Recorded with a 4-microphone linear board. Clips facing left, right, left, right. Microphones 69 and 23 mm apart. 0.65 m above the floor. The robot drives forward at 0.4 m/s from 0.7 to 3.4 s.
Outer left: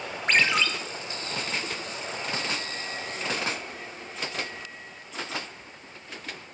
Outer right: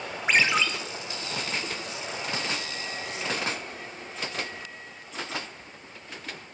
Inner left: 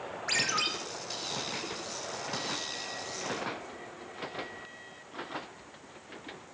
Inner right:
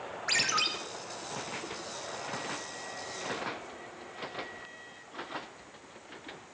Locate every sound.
0.3 s a ringtone: 10° right (ahead or behind), 1.2 m